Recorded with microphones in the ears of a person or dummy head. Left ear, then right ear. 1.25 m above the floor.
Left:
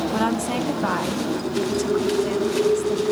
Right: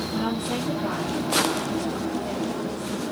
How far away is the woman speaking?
About 1.9 m.